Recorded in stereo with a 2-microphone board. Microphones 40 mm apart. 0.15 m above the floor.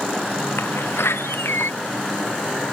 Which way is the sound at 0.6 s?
85° left.